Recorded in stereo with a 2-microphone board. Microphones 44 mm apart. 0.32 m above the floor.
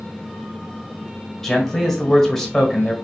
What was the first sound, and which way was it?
A man speaking, 10° left (ahead or behind).